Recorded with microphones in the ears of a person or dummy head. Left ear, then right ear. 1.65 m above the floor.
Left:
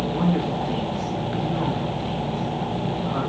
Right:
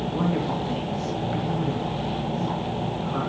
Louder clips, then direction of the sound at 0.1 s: Left 2 dB; centre (ahead or behind).